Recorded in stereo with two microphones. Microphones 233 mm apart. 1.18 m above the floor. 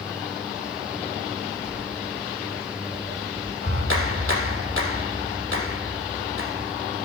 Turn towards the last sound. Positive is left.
turn(degrees=-60)  # may be behind; listen again after turning